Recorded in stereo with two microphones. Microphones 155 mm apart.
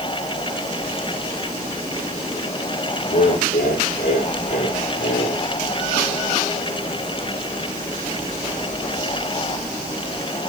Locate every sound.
3.1 s laughter: 65° left (ahead or behind), 4.5 m; by 5.4 s 70° left (ahead or behind), 2.5 m